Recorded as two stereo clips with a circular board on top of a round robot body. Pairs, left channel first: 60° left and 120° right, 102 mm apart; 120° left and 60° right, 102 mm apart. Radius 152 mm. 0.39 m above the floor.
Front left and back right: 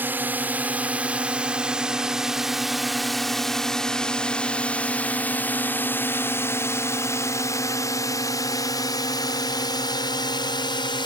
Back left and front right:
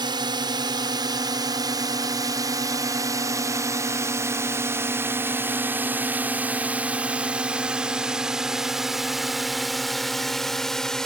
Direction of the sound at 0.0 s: 55° right.